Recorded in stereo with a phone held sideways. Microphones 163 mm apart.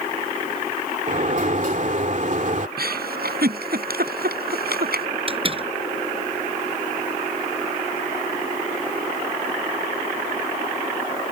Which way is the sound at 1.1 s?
50° right (ahead or behind).